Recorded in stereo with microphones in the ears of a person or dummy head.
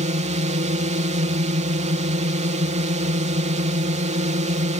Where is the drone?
35° right (ahead or behind).